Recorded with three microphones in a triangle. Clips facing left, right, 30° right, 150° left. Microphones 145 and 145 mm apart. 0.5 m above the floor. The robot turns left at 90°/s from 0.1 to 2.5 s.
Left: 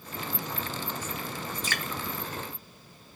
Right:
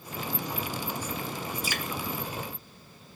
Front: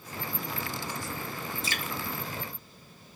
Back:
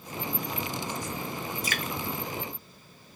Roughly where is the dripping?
Ahead.